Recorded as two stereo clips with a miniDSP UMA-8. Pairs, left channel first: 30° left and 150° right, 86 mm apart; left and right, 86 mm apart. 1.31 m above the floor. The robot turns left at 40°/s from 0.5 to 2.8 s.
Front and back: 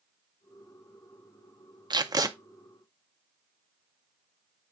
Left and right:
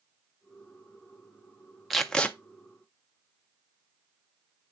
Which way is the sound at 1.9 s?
Straight behind.